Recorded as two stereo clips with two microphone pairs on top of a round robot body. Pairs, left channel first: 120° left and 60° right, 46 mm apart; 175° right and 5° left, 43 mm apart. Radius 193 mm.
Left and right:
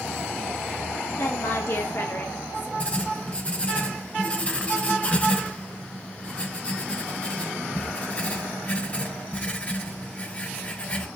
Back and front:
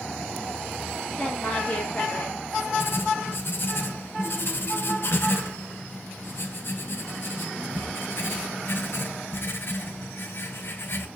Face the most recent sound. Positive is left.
turn(degrees=170)